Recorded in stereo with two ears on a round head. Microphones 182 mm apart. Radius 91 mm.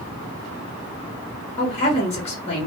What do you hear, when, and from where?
1.6 s a woman speaking: 30° left (ahead or behind), 1.3 m